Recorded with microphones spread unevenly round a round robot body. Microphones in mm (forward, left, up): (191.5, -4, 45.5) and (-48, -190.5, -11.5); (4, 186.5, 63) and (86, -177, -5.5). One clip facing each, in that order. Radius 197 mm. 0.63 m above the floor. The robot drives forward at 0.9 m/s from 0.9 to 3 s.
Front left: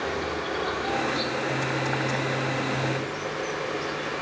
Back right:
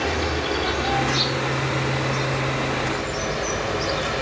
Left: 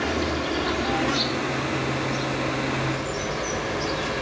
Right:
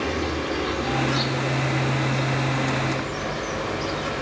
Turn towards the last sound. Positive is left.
turn(degrees=-175)